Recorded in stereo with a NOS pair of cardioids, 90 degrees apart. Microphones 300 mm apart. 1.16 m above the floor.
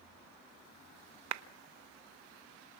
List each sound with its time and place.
1.3 s a clap: 65° right, 1.0 m